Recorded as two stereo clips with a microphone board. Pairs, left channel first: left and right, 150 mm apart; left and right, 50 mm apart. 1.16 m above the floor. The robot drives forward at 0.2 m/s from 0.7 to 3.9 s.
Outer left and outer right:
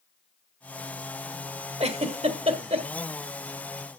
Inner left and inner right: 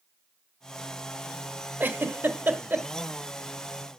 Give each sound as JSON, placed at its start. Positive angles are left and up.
{"t": 1.8, "sound": "a giggle", "side_deg": -40, "distance_m": 1.4}